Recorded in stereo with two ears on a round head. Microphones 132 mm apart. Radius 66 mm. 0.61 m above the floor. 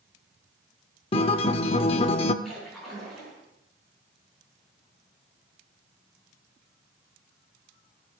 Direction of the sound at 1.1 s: 40° left (ahead or behind).